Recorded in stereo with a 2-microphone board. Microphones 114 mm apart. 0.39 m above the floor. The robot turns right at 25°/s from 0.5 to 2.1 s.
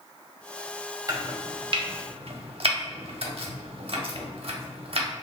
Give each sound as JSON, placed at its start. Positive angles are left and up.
{"t": 1.1, "sound": "chopping", "side_deg": -30, "distance_m": 0.6}